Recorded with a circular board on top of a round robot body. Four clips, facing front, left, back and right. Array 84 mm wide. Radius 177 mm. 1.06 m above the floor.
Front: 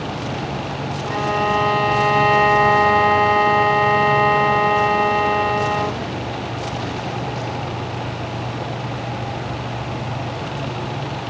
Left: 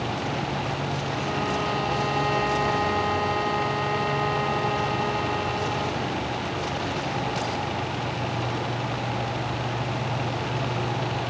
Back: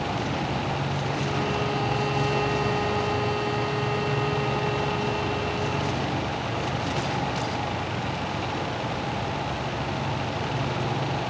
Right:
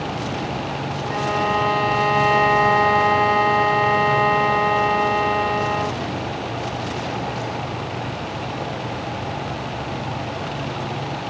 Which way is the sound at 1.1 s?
30° right.